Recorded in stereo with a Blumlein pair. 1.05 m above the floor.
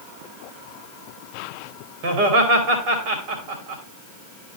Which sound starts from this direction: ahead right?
Laughter, at 2.0 s.